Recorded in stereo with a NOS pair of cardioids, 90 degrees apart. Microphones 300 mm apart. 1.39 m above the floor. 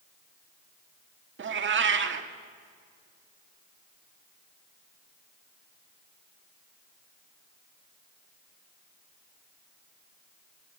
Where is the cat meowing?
40° right, 1.7 m.